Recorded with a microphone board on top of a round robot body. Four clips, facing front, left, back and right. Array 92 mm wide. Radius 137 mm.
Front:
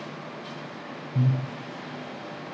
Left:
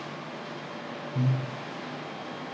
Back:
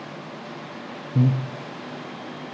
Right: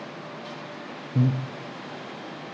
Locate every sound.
1.1 s breathing: 145° right, 0.5 m